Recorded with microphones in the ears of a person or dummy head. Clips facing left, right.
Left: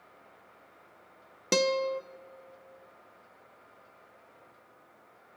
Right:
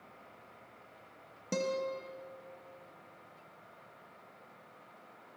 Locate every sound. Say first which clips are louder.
1.5 s a guitar: left 7 dB; 75° left (ahead or behind), 0.8 m